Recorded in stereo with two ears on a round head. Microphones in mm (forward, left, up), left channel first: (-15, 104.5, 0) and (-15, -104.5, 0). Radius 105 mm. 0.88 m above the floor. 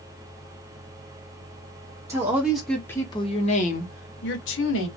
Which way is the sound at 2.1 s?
15° right (ahead or behind).